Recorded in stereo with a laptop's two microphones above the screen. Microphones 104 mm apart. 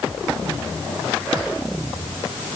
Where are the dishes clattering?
No dishes clattering in this recording.